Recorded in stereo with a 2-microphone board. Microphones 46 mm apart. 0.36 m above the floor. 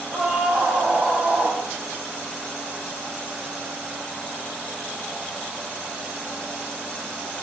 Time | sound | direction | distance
0.1 | a scream | 35° right (ahead or behind) | 3.5 m